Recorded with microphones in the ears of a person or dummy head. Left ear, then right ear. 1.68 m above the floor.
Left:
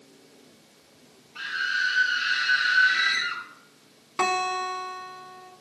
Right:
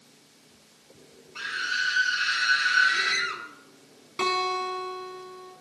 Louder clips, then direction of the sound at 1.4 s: Left 2 dB; 15° right (ahead or behind).